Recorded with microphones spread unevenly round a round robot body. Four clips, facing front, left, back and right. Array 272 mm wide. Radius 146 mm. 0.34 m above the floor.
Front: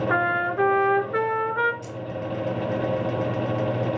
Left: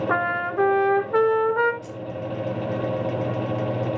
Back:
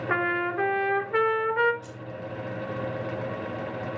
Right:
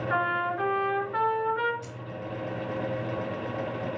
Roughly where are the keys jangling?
Ahead right.